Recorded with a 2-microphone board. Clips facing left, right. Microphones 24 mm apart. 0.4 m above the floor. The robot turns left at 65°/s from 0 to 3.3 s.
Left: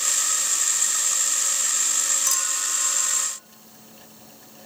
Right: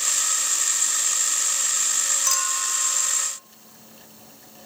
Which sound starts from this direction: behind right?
A clink, at 2.3 s.